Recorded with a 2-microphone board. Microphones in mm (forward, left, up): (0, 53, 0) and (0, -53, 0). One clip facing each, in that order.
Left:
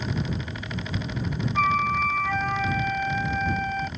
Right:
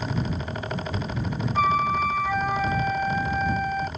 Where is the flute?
10° right (ahead or behind).